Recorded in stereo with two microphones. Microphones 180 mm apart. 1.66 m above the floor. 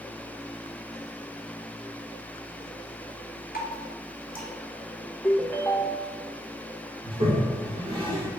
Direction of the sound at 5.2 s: 10° left (ahead or behind).